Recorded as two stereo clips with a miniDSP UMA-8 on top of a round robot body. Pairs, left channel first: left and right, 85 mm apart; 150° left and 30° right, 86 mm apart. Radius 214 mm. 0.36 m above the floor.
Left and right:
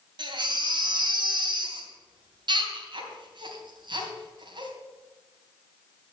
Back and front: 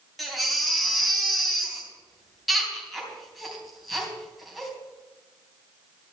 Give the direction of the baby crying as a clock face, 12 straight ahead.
4 o'clock.